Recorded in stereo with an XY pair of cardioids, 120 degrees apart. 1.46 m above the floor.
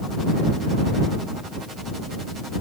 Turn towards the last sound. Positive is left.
No sound to turn to.